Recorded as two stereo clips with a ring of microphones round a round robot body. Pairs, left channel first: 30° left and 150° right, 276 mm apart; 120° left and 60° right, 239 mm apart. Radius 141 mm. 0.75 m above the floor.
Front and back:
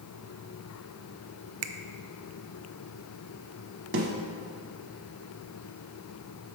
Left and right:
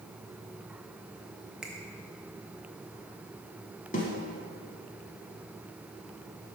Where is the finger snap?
145° right, 0.5 m.